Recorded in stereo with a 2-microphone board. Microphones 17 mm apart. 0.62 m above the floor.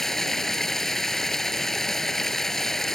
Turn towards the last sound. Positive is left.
turn(degrees=20)  # may be behind; listen again after turning